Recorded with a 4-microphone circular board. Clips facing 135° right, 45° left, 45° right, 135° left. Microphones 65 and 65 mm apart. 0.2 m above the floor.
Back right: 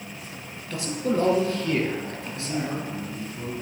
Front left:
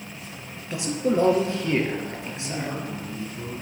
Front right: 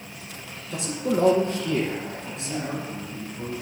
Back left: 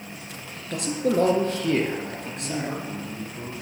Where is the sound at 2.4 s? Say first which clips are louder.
Back right 3 dB, back left 1 dB; 135° left, 5.5 m.